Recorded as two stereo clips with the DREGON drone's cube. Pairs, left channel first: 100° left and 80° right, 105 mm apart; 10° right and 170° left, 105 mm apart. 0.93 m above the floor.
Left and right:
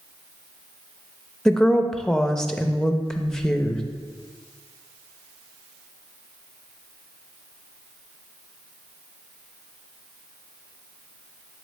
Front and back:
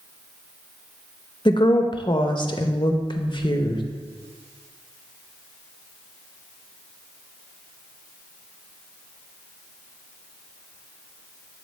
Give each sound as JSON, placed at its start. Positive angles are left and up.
{"t": 1.4, "sound": "a woman speaking", "azimuth_deg": 15, "distance_m": 0.6}